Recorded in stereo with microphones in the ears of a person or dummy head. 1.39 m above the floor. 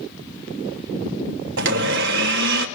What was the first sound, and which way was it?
A blender, 70° right (ahead or behind).